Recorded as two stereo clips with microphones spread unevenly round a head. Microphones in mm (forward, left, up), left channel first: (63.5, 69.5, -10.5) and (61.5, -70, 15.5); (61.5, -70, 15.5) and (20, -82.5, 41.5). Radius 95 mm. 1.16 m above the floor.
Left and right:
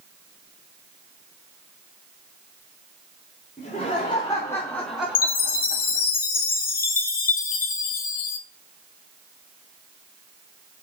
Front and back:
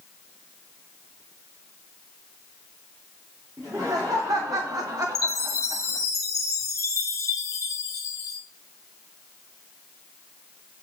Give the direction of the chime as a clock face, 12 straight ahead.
10 o'clock.